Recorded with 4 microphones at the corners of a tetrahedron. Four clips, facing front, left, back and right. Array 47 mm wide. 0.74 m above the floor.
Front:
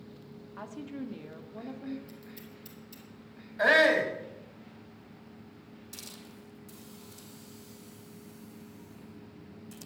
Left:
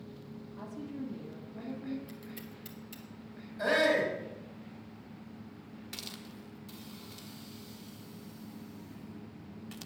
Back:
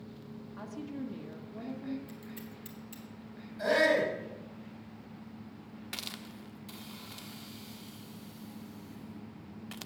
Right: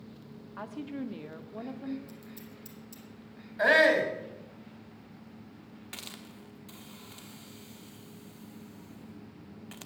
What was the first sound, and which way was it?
A woman speaking, 80° right.